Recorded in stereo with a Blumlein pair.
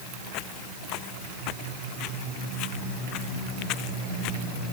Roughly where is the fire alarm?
I don't hear a fire alarm.